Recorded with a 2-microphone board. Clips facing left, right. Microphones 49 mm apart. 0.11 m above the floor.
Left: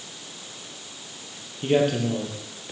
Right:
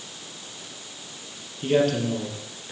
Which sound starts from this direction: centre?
A man speaking, at 1.6 s.